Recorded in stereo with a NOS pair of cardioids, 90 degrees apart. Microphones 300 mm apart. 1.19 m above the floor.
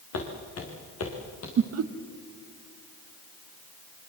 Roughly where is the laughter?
Ahead right.